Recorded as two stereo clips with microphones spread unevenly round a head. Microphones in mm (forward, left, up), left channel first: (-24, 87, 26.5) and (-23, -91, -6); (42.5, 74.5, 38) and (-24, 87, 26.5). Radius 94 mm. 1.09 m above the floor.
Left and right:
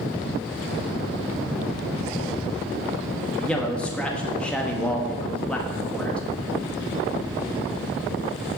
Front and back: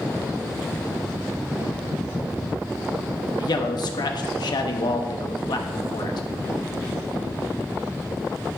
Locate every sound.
3.4 s a man speaking: 5° left, 1.4 m